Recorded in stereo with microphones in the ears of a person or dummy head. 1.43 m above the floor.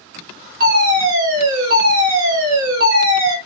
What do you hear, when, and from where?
0.6 s a fire alarm: 50° right (ahead or behind), 1.4 m